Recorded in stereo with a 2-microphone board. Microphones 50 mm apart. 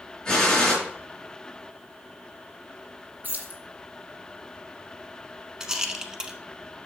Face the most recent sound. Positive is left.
turn(degrees=-15)  # may be behind; listen again after turning